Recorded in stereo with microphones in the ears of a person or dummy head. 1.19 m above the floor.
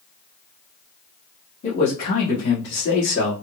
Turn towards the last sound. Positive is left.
turn(degrees=65)  # may be behind; listen again after turning